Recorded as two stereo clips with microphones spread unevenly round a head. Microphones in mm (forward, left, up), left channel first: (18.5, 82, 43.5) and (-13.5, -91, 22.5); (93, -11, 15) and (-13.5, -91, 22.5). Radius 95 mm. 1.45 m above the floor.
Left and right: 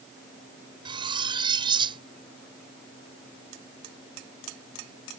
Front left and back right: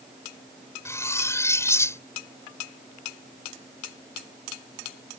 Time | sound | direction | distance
0.8 | cutlery clinking | 35° right | ?